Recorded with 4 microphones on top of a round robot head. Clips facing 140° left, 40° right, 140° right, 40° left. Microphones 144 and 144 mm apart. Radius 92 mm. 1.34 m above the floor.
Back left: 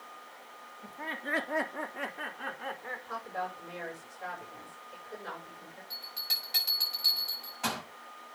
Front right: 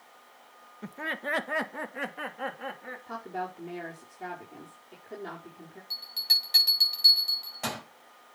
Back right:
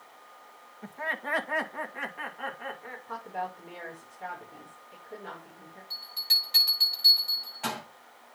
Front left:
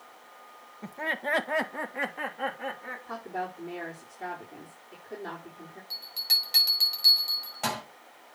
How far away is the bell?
About 7 m.